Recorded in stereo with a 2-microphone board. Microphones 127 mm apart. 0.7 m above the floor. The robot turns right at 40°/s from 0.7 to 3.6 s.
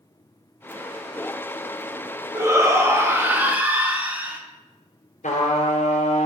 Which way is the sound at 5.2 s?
75° left (ahead or behind).